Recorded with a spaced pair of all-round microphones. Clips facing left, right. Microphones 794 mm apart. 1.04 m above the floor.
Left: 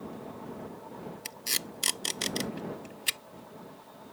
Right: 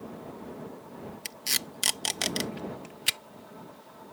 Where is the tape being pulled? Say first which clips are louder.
Even; 30° right (ahead or behind).